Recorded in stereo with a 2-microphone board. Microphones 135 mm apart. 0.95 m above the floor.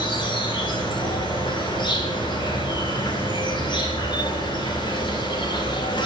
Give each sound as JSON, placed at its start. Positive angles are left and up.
{"t": 0.0, "sound": "an insect", "side_deg": 35, "distance_m": 1.7}